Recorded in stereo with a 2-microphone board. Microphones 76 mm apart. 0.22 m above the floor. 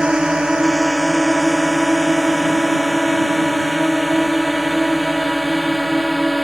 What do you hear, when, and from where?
0.0 s a drone: 10° right (ahead or behind); by 6.4 s 5° left (ahead or behind)